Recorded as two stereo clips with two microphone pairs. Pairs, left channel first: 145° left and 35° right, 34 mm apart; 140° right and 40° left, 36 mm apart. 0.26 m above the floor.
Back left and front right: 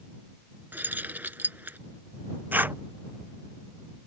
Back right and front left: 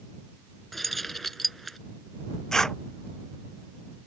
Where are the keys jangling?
55° right.